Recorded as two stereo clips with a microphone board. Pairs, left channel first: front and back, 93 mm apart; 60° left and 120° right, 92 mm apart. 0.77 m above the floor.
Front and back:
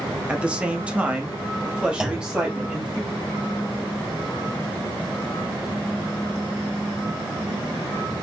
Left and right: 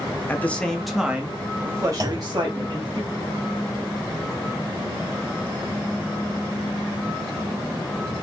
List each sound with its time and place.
0.3 s a man speaking: 110° left, 1.0 m; by 3.0 s 100° right, 1.5 m
2.0 s a clunk: 100° right, 0.8 m